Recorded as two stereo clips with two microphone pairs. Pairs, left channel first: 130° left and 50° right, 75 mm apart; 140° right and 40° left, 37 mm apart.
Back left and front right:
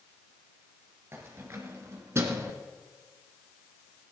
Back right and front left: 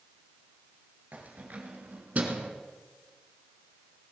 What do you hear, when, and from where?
1.1 s keys jangling: 5° left, 3 m; by 2.5 s 5° right, 1.7 m